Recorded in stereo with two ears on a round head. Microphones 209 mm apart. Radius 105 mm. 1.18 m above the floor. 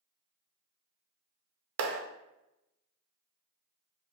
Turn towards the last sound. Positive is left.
turn(degrees=-50)  # may be behind; listen again after turning